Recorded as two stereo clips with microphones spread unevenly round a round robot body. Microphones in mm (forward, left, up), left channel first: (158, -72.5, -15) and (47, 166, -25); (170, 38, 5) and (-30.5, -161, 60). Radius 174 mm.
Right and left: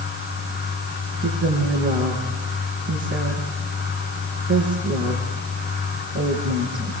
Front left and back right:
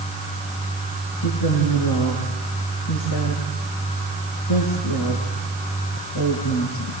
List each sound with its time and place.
1.2 s a woman speaking: 70° left, 6.5 m